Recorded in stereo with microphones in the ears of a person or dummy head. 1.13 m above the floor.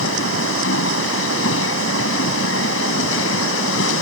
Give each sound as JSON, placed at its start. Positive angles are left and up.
{"t": 0.0, "sound": "a machine running", "side_deg": 80}